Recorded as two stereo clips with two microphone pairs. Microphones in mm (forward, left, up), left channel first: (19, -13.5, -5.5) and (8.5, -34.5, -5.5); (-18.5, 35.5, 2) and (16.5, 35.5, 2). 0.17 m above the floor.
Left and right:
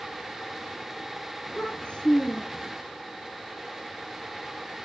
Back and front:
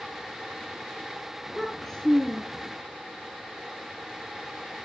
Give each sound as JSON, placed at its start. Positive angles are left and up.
{"t": 1.5, "sound": "a child speaking", "azimuth_deg": 105, "distance_m": 4.0}